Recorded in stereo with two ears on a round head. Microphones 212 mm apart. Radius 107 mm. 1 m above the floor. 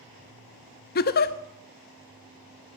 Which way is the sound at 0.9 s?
40° left (ahead or behind).